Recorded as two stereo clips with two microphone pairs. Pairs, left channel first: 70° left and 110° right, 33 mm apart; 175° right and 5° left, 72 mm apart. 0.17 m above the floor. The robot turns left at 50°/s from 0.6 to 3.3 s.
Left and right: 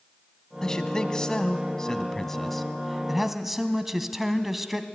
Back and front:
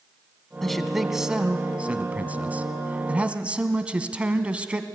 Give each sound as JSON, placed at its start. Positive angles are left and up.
{"t": 0.6, "sound": "a man speaking", "azimuth_deg": 100, "distance_m": 1.0}